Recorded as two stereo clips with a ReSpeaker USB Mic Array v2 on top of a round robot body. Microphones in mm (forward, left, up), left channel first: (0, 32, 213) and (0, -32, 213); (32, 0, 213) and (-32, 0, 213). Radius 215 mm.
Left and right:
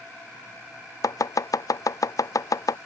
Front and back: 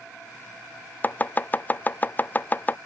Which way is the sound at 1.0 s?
65° left.